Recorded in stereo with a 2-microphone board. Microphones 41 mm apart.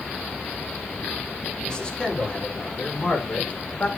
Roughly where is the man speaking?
Centre.